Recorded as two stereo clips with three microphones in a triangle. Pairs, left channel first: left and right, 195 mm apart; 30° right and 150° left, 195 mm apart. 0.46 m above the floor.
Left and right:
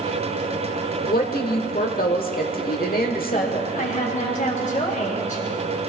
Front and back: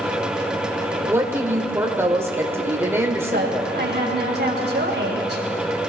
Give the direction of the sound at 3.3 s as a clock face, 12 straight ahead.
8 o'clock.